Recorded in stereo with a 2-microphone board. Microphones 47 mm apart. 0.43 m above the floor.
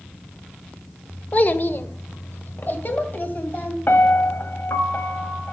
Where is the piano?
50° left (ahead or behind), 1.3 m.